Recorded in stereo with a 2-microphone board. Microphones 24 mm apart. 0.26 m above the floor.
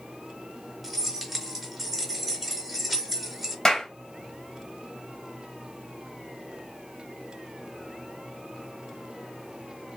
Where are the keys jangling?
5° right (ahead or behind), 1.1 m.